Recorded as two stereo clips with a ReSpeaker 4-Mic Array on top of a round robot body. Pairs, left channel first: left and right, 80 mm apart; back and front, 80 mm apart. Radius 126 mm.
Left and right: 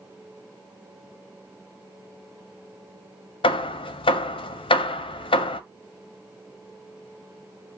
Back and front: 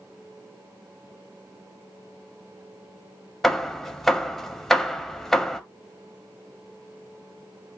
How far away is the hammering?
About 0.6 m.